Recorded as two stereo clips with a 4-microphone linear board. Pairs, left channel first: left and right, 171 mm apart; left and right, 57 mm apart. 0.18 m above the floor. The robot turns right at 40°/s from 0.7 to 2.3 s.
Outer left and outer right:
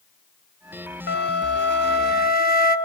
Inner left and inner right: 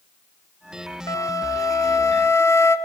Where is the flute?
75° left, 0.8 m; by 2.8 s 120° left, 0.8 m.